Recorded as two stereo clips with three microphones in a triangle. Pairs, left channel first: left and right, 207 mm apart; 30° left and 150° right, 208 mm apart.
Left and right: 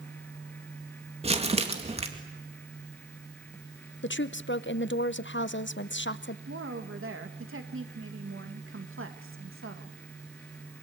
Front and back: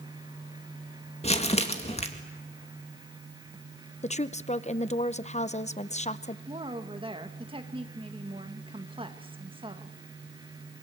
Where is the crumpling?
30° right, 2 m.